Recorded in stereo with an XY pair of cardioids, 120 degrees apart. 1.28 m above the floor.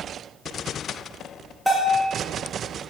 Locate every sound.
1.7 s a bell: 5° left, 2.5 m